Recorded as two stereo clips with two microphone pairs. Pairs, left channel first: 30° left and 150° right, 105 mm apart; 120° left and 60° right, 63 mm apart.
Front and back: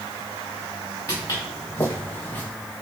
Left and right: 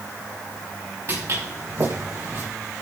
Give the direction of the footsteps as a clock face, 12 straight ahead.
1 o'clock.